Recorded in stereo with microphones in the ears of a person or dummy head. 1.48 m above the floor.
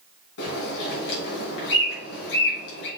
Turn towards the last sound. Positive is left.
turn(degrees=60)  # may be behind; listen again after turning